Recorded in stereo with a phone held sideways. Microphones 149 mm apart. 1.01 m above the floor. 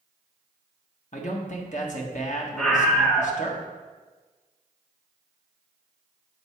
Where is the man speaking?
55° left (ahead or behind), 1.4 m.